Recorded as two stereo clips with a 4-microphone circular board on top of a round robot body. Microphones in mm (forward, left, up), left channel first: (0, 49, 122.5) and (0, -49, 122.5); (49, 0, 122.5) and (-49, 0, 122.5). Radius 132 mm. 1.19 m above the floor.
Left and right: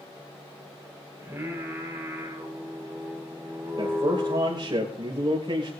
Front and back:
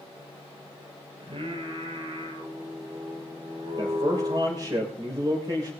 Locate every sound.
1.2 s singing: 155° right, 5.5 m
3.8 s a man speaking: 135° right, 6 m